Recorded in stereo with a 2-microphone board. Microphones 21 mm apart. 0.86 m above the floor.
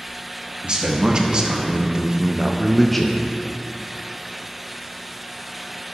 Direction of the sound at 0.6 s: 45° right (ahead or behind).